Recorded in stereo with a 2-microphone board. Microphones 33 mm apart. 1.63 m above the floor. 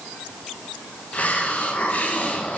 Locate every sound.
1.1 s a hiss: 50° left (ahead or behind), 2 m